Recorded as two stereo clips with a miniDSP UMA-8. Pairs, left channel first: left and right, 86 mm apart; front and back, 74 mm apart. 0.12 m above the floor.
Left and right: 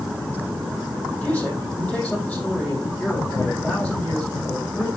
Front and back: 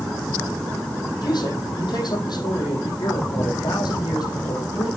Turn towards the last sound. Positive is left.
turn(degrees=15)